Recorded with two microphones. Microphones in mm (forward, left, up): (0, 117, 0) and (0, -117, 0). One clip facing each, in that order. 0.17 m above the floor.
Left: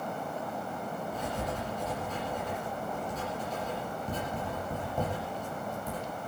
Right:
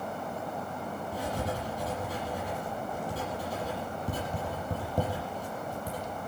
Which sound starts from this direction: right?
Writing, at 1.1 s.